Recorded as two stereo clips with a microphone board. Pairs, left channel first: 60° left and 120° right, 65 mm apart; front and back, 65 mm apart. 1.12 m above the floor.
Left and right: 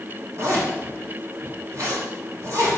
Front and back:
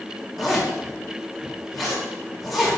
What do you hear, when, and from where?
0.4 s a zipper: 90° right, 2.5 m